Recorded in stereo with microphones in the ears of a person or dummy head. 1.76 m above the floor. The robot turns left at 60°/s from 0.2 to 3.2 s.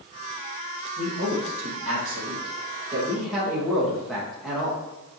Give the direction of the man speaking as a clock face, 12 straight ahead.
2 o'clock.